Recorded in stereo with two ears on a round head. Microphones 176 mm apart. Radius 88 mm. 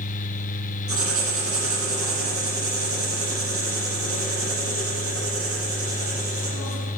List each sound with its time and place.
0.9 s writing: 35° right (ahead or behind), 5.5 m